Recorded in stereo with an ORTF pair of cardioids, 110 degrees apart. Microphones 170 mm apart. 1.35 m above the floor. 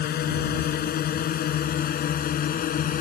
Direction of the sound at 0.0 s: 60° left.